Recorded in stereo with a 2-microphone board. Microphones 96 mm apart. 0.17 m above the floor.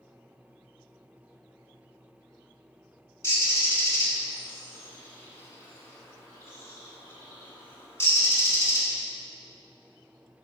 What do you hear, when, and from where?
3.2 s a bird: 30° left (ahead or behind), 0.6 m